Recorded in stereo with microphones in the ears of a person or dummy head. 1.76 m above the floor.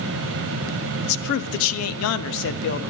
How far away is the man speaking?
About 0.8 m.